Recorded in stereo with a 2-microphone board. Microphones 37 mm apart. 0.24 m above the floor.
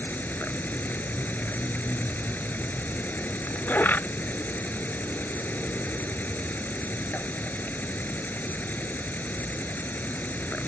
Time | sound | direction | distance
0.0 | an insect | 55° left (ahead or behind) | ?